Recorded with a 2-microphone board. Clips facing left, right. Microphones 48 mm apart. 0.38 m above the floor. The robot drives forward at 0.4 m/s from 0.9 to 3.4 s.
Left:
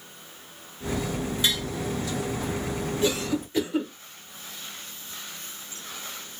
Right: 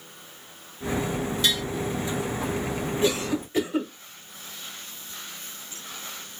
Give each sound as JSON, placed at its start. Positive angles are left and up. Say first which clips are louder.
{"t": 1.4, "sound": "tapping", "louder": "right 1 dB", "side_deg": 20, "distance_m": 1.0}
{"t": 3.0, "sound": "a cough", "louder": "right 1 dB", "side_deg": -20, "distance_m": 0.9}